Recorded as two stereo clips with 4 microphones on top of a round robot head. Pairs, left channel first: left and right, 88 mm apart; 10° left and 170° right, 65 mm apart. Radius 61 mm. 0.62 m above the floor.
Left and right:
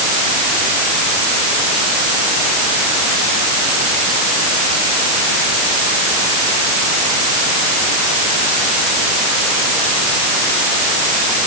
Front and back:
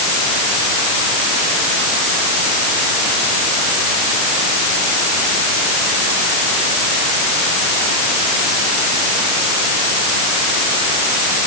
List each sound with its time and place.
Only background noise.